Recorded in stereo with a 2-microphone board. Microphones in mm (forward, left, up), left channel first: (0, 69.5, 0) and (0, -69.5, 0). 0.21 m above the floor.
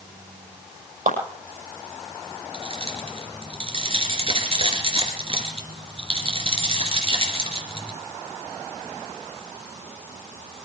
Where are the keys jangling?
45° right (ahead or behind), 3 m.